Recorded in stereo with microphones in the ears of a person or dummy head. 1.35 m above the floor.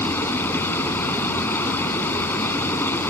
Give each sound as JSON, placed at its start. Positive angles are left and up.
{"t": 0.0, "sound": "running water", "side_deg": 15}